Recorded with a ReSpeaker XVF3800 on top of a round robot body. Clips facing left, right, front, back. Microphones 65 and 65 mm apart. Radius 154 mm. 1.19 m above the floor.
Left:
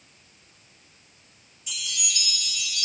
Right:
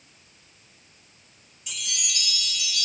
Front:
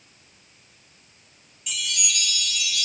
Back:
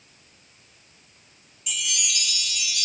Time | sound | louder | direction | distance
1.7 | a chime | even, even | 95° right | 1.4 m